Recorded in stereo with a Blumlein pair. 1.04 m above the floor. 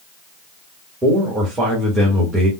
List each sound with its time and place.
1.0 s a man speaking: 10° right, 1.3 m